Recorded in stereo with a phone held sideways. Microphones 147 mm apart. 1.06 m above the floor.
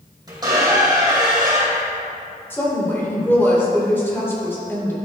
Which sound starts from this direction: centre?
A woman speaking, at 2.5 s.